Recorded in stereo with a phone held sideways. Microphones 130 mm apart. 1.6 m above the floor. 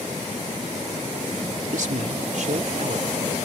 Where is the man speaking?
75° right (ahead or behind); by 3.2 s 60° right (ahead or behind).